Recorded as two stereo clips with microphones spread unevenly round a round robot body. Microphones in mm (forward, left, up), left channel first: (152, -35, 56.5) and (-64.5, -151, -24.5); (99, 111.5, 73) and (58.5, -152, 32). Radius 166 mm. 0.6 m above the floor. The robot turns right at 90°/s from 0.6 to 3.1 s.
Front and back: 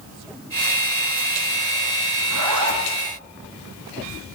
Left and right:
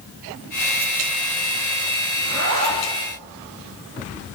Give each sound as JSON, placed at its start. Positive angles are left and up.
{"t": 2.2, "sound": "a zipper", "azimuth_deg": 175, "distance_m": 3.5}